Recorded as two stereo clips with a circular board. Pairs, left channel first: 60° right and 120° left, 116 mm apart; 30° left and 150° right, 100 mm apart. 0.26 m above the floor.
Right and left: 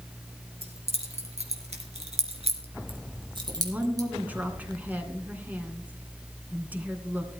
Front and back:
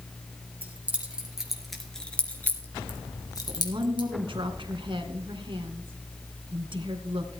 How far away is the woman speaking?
About 2.5 m.